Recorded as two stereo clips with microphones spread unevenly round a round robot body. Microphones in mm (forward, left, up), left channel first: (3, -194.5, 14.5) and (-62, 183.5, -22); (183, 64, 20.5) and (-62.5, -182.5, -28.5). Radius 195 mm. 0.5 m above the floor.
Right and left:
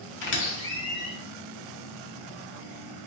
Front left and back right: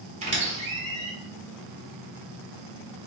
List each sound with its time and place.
0.2 s a squeak: 110° right, 0.7 m